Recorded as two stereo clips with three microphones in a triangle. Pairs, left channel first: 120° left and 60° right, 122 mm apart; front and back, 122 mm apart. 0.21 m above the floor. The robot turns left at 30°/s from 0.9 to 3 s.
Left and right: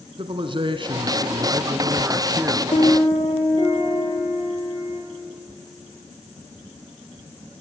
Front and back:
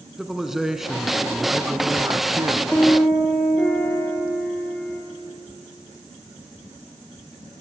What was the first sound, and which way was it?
A man speaking, 95° right.